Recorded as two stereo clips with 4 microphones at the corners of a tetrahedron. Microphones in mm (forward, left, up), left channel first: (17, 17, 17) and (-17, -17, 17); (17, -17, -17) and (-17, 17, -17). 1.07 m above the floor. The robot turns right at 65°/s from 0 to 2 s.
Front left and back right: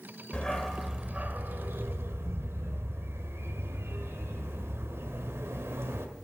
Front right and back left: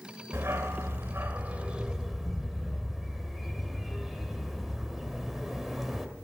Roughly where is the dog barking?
Left.